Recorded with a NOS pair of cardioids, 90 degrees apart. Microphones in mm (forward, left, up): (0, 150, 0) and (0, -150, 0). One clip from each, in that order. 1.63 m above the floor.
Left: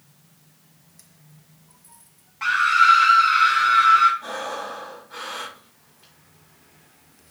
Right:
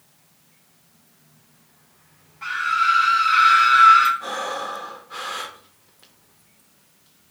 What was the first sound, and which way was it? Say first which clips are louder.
A scream: left 4 dB; 50° left.